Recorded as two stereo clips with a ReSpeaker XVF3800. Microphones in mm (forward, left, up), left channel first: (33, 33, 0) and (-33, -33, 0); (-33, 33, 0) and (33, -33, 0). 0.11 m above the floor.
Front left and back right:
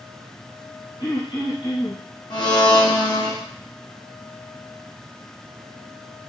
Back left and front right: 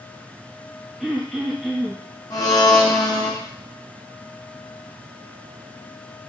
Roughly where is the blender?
Left.